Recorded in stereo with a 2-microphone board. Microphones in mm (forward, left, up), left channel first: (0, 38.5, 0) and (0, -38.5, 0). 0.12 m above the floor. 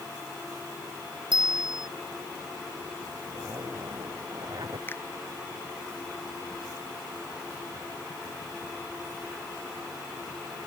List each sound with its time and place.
1.3 s a bicycle bell: 75° right (ahead or behind)
3.3 s a zipper: 55° right (ahead or behind)
4.9 s a finger snap: 30° left (ahead or behind)